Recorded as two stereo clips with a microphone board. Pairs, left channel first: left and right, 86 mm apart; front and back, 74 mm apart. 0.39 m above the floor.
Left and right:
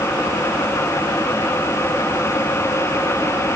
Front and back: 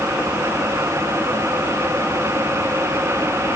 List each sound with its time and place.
Only background noise.